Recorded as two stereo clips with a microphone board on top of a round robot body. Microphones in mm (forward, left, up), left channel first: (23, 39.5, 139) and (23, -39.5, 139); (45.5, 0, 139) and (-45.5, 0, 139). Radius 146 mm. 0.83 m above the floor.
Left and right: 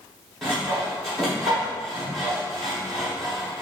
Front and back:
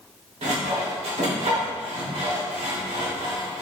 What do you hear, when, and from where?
0.4 s sawing: straight behind, 1.2 m